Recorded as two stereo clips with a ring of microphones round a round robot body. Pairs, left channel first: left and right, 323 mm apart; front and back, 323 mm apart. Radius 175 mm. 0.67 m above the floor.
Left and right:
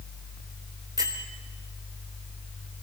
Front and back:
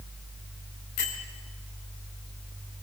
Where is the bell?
15° right, 3 m.